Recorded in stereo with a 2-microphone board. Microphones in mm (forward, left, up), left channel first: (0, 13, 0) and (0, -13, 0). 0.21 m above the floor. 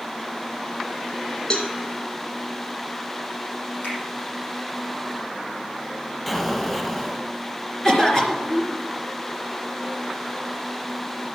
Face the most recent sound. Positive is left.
turn(degrees=15)  # may be behind; listen again after turning